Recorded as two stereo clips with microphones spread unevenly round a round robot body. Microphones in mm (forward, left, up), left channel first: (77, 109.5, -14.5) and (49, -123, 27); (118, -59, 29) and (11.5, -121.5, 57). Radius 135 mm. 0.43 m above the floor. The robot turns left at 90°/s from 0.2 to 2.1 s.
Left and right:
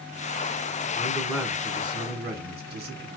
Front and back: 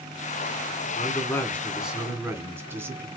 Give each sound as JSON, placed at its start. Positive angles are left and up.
{"t": 0.9, "sound": "a man speaking", "azimuth_deg": 35, "distance_m": 1.4}